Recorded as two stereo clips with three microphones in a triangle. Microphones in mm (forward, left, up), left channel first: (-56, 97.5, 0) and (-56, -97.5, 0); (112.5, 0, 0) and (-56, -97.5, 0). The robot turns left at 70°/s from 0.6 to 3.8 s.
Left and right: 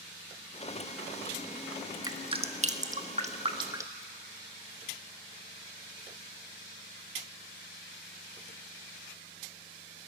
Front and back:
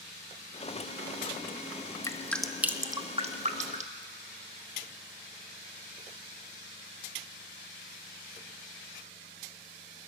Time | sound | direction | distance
2.0 | dripping | 30° right | 1.4 m